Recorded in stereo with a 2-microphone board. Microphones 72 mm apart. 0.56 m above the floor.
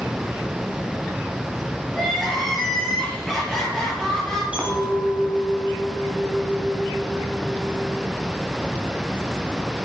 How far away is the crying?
About 8.5 m.